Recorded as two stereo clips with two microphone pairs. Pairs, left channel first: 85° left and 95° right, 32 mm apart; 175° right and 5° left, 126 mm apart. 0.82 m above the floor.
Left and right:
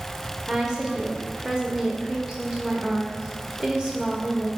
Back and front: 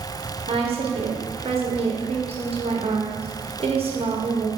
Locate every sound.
0.5 s a woman speaking: 25° right, 1.2 m